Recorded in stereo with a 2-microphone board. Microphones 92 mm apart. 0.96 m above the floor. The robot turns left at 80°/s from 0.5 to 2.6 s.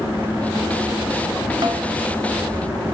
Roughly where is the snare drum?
Right.